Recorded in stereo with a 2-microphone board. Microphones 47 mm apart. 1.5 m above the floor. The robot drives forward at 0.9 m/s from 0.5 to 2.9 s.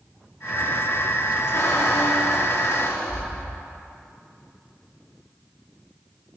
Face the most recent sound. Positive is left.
turn(degrees=55)  # may be behind; listen again after turning